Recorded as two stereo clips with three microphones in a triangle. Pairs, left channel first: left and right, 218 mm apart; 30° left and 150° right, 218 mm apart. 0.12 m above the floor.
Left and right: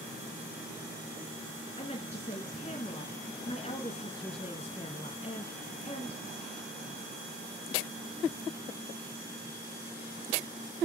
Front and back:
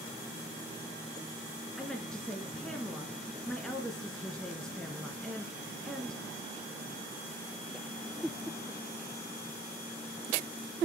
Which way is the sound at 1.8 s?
115° left.